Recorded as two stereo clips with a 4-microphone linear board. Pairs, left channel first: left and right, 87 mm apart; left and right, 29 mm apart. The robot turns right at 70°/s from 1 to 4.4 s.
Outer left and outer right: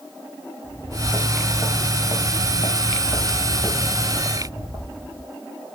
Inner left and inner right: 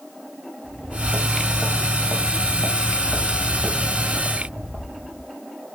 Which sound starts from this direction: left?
Footsteps, at 0.6 s.